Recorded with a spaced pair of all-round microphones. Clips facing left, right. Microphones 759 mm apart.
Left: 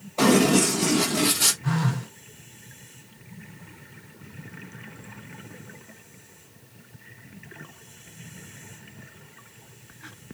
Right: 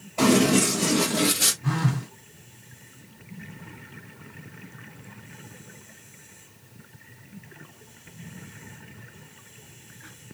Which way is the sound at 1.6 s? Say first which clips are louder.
Even; 5° left (ahead or behind).